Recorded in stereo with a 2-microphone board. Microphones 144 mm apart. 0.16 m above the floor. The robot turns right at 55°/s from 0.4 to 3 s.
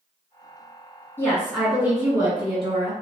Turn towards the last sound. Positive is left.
turn(degrees=-100)